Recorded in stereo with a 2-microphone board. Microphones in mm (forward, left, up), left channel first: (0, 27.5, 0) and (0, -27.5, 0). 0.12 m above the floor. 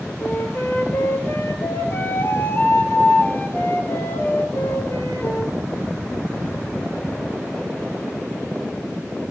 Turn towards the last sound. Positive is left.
turn(degrees=40)  # may be behind; listen again after turning